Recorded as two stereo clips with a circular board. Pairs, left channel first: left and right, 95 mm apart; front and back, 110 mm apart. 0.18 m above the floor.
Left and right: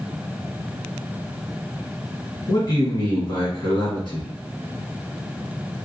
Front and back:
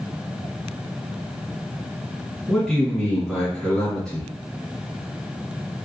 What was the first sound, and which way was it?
A man speaking, 85° left.